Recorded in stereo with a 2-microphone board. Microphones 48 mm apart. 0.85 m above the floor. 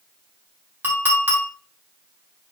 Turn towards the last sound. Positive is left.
turn(degrees=-45)  # may be behind; listen again after turning